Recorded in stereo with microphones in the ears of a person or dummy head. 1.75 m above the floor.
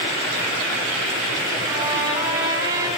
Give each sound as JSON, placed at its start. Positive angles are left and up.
{"t": 1.7, "sound": "a trumpet", "side_deg": -25, "distance_m": 2.5}